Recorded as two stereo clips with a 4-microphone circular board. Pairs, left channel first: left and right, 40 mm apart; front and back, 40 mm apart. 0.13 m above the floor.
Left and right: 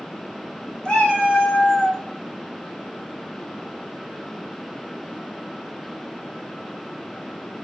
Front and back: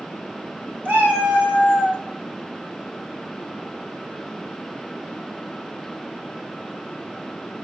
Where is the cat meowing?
160° left, 1.5 m.